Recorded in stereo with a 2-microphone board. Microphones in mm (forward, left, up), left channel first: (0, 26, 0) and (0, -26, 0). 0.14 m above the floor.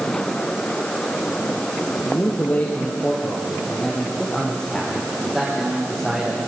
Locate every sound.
2.0 s a man speaking: 35° left (ahead or behind), 3 m; by 6.4 s 15° right (ahead or behind), 5 m